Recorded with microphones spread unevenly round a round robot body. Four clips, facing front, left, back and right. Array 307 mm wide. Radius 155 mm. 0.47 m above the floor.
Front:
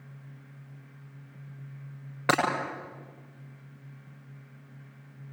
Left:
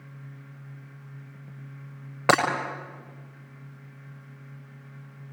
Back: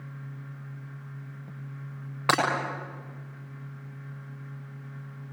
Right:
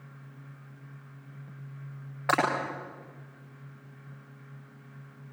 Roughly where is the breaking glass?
Left.